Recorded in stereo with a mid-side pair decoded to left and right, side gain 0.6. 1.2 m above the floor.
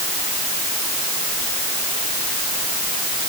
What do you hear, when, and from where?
Only background noise.